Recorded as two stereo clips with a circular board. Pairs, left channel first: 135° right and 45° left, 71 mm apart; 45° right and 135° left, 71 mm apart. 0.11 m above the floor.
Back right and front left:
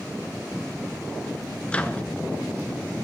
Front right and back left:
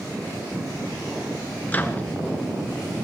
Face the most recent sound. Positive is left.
turn(degrees=-80)